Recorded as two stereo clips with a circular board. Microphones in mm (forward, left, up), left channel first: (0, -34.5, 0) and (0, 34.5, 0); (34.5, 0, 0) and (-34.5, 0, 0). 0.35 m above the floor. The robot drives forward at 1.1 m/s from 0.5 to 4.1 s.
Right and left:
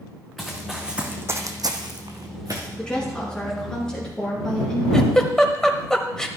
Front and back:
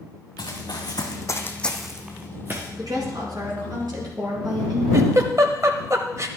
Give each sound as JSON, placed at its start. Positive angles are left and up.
{"t": 0.4, "sound": "running footsteps", "azimuth_deg": 0, "distance_m": 2.5}
{"t": 2.8, "sound": "a woman speaking", "azimuth_deg": -165, "distance_m": 3.5}
{"t": 4.9, "sound": "a giggle", "azimuth_deg": -170, "distance_m": 0.9}